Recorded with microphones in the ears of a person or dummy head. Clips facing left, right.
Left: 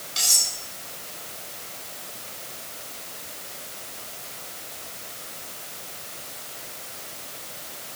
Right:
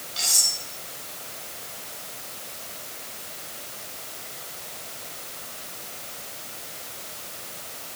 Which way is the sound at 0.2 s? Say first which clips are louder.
Even; 35° left (ahead or behind).